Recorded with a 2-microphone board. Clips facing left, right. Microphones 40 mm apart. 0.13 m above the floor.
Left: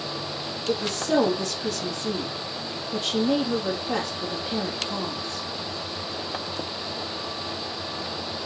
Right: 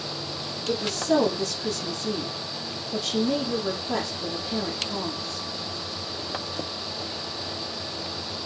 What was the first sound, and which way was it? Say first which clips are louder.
A woman speaking: right 1 dB; 45° left (ahead or behind).